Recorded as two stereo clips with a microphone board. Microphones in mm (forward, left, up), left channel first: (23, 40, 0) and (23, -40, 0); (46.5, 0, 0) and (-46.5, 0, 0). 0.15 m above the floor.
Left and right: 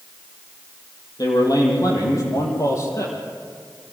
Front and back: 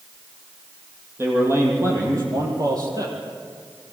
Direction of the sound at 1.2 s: 120° left.